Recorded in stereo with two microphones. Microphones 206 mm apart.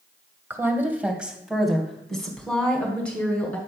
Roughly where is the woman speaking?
Centre.